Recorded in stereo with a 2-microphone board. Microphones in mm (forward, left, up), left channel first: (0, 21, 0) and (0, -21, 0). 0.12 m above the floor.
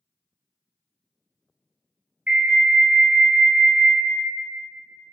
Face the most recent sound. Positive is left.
turn(degrees=-30)  # may be behind; listen again after turning